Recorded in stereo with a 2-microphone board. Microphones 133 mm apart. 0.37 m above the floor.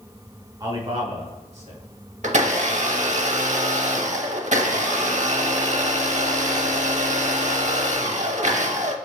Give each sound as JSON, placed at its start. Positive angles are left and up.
{"t": 0.6, "sound": "a man speaking", "side_deg": -25, "distance_m": 0.8}
{"t": 2.2, "sound": "a blender", "side_deg": -60, "distance_m": 0.6}